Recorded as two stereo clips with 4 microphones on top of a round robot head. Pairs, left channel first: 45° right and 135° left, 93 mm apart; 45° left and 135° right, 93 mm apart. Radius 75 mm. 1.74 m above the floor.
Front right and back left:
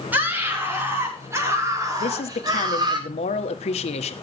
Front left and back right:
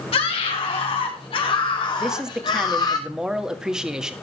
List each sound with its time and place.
0.1 s a scream: 65° left, 6 m; by 3.0 s 95° left, 4 m
2.0 s a man speaking: 50° right, 1.6 m